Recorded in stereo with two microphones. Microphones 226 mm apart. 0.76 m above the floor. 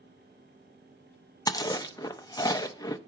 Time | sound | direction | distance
1.5 | chewing | 15° left (ahead or behind) | 0.6 m